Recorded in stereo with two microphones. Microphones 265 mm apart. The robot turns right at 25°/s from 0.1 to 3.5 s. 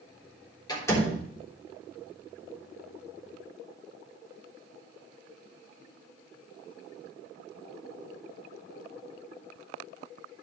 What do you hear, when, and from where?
0.7 s a door slam: 15° left (ahead or behind), 3.5 m; by 1.2 s centre (ahead or behind), 3.5 m